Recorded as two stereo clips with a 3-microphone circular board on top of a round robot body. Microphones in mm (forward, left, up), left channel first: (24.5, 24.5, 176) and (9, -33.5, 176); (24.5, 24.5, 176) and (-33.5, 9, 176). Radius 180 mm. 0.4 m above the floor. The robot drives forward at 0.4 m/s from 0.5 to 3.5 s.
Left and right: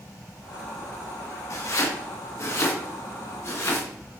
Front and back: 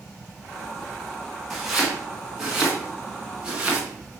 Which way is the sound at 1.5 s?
110° left.